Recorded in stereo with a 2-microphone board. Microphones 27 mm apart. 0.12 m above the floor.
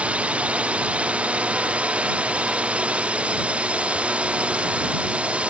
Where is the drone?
55° right (ahead or behind).